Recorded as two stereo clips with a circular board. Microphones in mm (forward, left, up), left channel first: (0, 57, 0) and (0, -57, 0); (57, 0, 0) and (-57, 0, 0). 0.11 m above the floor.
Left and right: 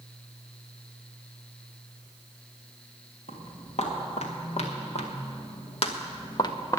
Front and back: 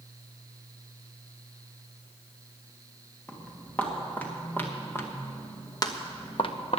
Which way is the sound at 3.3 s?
80° left.